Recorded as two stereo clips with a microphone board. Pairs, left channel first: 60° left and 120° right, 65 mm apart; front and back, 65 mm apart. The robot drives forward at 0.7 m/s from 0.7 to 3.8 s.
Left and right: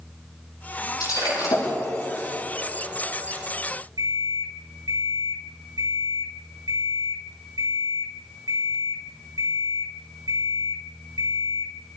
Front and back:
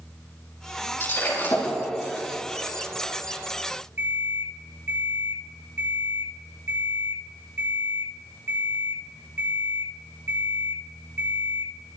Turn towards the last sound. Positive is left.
turn(degrees=-125)